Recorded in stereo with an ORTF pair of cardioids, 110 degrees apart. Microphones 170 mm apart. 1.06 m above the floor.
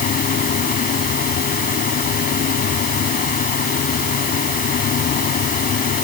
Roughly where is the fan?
Ahead left.